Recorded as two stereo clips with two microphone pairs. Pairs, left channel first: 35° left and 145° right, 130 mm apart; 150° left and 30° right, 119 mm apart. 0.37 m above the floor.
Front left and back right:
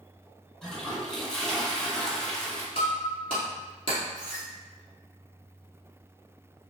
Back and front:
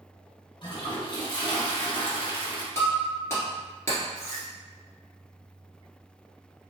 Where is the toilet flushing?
120° left, 0.7 m.